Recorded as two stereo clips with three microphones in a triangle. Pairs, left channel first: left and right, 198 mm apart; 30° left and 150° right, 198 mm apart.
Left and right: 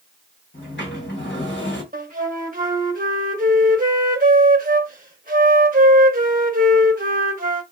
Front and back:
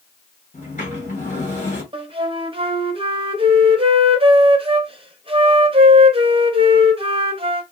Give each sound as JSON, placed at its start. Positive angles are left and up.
{"t": 0.5, "sound": "a sliding door", "azimuth_deg": 80, "distance_m": 1.9}
{"t": 1.9, "sound": "a flute", "azimuth_deg": -100, "distance_m": 0.8}